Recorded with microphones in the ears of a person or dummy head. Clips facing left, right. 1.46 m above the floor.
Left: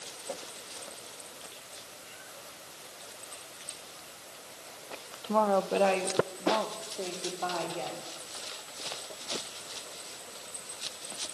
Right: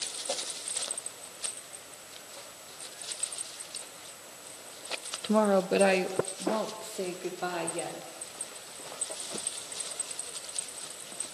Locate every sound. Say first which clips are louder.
5.2 s a woman speaking: right 2 dB; 25° right (ahead or behind), 0.7 m; by 8.0 s 20° right (ahead or behind), 4.5 m